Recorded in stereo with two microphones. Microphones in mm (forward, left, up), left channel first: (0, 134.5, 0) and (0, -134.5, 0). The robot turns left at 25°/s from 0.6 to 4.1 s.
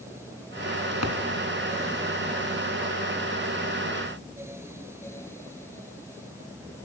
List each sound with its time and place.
1.0 s a thud: 70° left (ahead or behind), 3 m